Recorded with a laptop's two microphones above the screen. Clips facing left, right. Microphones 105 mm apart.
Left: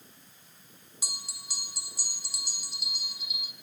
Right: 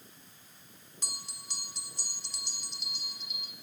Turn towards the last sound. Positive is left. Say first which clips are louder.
# left 1 dB
turn(degrees=5)  # may be behind; listen again after turning